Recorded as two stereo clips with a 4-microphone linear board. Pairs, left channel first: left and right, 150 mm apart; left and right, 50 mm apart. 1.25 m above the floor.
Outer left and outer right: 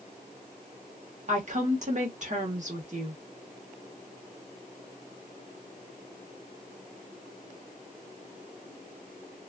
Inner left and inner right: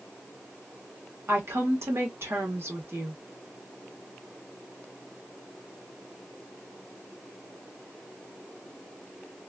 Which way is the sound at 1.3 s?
50° right (ahead or behind).